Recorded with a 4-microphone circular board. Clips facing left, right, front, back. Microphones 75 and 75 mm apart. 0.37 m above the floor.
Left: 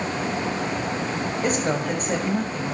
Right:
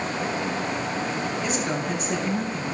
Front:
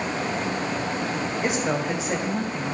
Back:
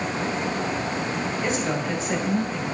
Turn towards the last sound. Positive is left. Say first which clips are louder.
# left 3 dB, front 2 dB
turn(degrees=65)